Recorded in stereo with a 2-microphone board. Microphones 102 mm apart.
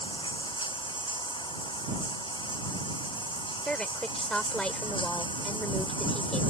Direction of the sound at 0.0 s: 55° left (ahead or behind).